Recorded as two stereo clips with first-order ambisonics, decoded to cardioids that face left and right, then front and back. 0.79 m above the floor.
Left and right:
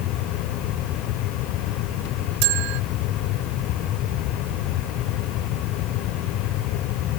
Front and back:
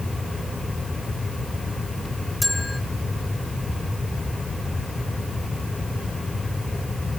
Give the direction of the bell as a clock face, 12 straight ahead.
3 o'clock.